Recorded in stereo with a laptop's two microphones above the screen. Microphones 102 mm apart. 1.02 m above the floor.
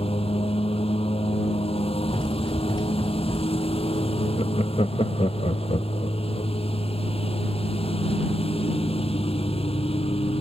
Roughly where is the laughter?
Left.